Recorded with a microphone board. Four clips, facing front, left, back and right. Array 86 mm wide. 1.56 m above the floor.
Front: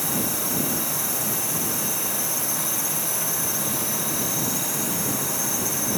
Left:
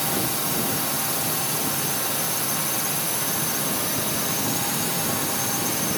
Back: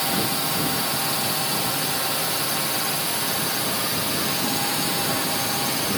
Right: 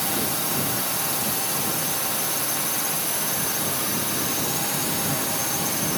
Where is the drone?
Straight behind.